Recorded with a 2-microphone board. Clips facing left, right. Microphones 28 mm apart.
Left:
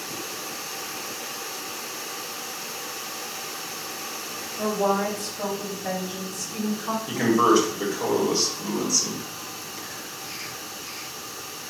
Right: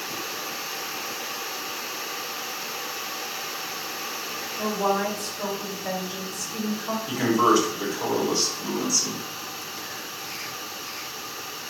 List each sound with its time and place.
4.6 s a woman speaking: 45° left (ahead or behind), 1.6 m; by 7.0 s 60° left (ahead or behind), 3 m
7.1 s a man speaking: 40° left (ahead or behind), 1.6 m